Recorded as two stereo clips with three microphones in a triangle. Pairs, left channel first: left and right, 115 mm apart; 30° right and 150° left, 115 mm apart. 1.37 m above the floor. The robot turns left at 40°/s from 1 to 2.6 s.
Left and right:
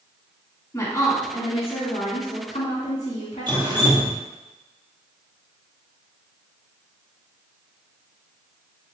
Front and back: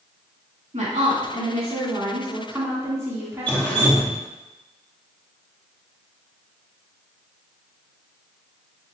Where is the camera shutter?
I don't hear a camera shutter.